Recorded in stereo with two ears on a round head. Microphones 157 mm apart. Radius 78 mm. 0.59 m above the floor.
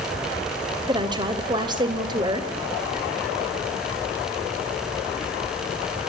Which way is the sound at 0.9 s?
30° right (ahead or behind).